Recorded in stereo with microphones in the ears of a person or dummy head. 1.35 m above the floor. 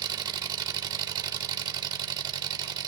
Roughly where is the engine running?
Right.